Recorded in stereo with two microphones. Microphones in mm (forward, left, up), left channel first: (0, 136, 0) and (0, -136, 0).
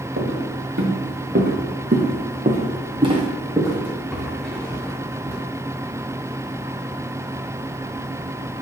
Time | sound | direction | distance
0.2 | footsteps | 50° right (ahead or behind) | 2.5 m